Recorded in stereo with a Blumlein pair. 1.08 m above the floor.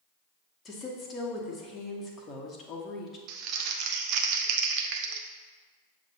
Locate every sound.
0.7 s a woman speaking: 20° left, 1.2 m
3.3 s crumpling: 40° right, 0.6 m